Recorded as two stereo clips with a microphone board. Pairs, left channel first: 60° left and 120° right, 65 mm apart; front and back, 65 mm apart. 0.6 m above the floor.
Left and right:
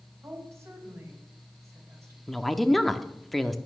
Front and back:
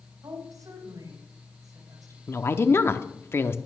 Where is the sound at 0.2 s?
165° right, 4 m.